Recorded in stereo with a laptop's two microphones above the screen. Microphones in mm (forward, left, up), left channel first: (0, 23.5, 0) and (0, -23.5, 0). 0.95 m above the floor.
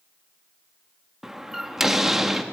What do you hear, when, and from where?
1.2 s a door slam: 5° right (ahead or behind), 0.6 m